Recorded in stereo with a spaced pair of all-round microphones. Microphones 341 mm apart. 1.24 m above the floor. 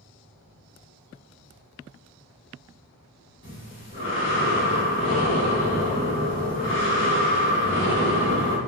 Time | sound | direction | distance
3.4 | breathing | 35° left (ahead or behind) | 0.9 m